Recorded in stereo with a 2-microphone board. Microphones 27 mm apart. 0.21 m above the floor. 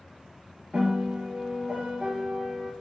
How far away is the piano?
About 1.1 m.